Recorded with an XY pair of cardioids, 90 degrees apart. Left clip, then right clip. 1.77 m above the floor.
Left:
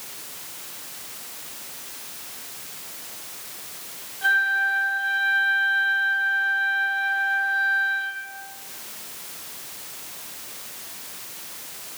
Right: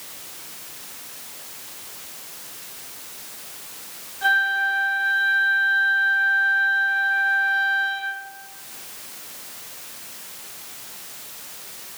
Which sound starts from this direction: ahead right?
A flute, at 4.2 s.